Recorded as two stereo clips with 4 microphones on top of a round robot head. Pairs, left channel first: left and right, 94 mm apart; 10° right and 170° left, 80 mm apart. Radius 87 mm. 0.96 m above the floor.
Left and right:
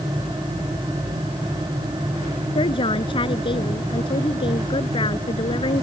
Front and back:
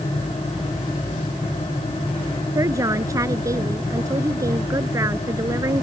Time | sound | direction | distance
2.5 | a woman speaking | 125° left | ?